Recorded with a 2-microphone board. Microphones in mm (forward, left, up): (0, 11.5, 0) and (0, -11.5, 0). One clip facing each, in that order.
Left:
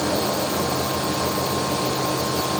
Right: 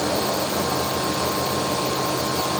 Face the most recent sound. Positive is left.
No sound to turn to.